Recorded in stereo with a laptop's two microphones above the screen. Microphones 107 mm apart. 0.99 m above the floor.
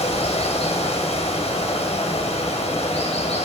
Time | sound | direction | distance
0.0 | running water | 80° left | 3 m